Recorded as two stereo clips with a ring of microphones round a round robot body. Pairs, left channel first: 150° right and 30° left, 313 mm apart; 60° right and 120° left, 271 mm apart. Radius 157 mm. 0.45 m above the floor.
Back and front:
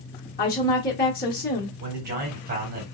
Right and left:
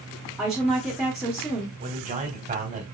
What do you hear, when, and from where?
0.4 s a woman speaking: 155° right, 0.9 m
1.8 s a man speaking: 75° left, 1.3 m